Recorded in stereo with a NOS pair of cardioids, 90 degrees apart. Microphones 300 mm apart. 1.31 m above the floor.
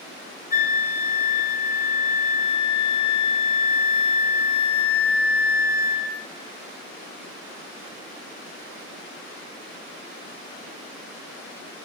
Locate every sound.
0.5 s a flute: 30° left, 0.9 m